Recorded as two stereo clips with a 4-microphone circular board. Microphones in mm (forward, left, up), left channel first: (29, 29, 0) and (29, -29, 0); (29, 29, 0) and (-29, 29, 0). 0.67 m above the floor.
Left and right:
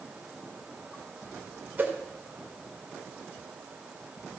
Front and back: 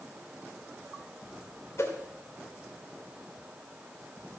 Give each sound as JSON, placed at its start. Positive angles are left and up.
{"t": 1.8, "sound": "a whoosh", "azimuth_deg": -35, "distance_m": 2.0}